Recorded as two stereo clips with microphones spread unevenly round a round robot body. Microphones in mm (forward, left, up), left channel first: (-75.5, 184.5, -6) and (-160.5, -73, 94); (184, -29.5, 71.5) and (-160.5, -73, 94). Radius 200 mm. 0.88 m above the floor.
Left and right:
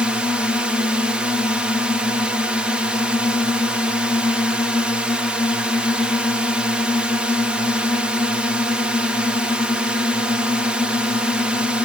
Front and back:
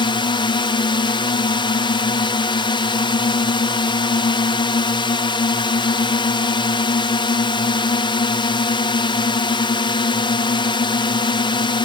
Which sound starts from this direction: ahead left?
A drone, at 0.0 s.